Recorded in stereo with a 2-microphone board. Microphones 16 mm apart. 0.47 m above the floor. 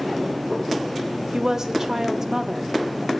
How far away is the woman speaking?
About 1.0 m.